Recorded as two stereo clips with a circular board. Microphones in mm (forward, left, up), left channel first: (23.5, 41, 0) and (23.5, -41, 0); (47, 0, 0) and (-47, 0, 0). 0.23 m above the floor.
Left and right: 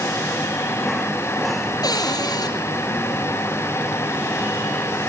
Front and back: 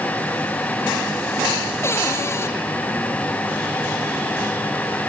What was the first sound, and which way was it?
A cupboard door, 60° left.